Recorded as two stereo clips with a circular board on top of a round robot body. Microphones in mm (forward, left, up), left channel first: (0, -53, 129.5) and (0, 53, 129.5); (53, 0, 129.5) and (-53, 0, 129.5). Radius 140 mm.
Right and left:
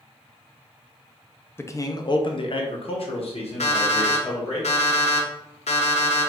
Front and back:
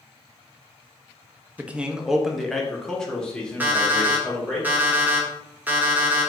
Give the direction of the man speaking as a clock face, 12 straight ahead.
4 o'clock.